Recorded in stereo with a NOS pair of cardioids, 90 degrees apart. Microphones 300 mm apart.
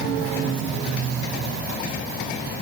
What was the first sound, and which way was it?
Only background noise.